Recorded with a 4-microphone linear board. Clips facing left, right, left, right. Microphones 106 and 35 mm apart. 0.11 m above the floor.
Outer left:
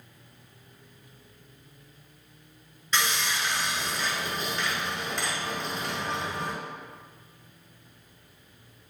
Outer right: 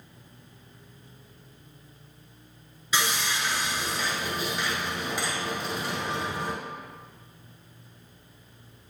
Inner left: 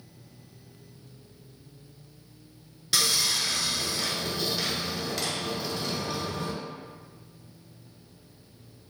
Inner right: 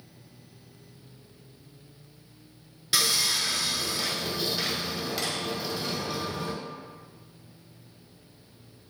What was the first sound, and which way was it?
Sawing, 5° right (ahead or behind).